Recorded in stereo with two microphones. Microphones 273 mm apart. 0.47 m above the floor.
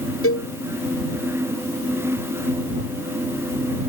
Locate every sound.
0.2 s a cowbell: 55° left (ahead or behind)